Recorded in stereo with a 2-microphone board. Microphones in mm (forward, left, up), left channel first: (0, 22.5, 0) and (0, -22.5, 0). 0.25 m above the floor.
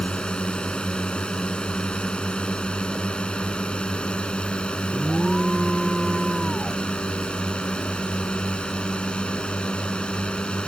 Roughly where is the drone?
Left.